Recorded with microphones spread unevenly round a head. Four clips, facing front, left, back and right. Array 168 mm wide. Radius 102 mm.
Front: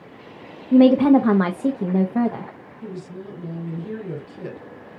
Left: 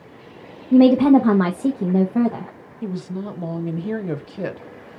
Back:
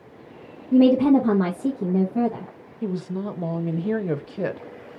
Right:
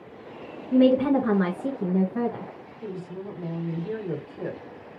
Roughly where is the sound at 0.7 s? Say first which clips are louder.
Left 7 dB, front 3 dB; ahead left.